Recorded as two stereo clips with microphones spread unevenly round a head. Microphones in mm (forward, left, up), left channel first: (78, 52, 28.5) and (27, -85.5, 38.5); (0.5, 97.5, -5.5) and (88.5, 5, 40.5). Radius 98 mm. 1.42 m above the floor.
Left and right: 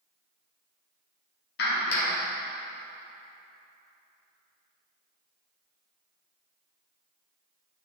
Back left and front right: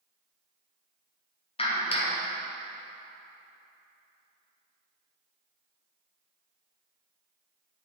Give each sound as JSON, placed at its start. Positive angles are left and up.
{"t": 1.6, "sound": "a clap", "azimuth_deg": 85, "distance_m": 1.5}